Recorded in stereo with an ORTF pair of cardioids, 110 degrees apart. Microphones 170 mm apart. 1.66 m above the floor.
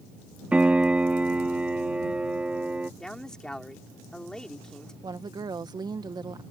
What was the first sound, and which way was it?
A piano, 5° right.